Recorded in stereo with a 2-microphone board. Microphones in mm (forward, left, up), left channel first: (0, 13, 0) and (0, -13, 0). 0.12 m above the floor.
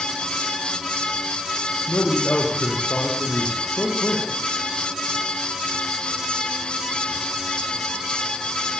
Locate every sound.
1.9 s a man speaking: 75° left (ahead or behind), 5 m